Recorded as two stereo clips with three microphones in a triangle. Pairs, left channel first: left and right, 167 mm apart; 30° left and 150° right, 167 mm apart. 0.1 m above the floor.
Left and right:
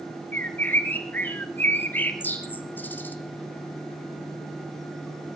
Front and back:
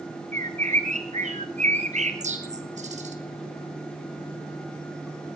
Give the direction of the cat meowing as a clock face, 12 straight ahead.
No cat meowing in this recording.